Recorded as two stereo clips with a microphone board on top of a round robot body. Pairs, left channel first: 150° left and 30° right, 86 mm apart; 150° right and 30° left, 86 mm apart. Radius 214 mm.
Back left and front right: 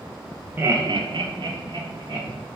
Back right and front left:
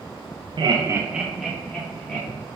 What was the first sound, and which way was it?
Laughter, 35° left.